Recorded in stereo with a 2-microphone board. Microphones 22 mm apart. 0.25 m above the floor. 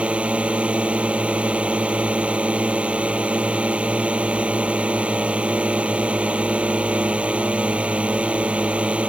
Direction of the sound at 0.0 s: 70° right (ahead or behind).